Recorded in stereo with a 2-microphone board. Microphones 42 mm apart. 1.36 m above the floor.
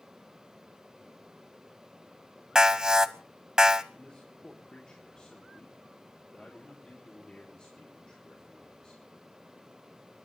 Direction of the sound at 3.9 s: 20° left (ahead or behind).